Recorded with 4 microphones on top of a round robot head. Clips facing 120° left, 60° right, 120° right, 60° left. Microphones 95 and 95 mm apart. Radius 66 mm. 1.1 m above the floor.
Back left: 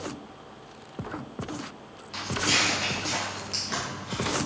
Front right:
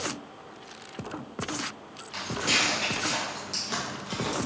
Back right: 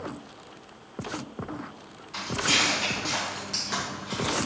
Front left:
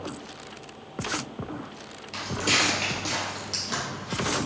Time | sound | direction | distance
2.1 | footsteps | 45° left | 1.6 m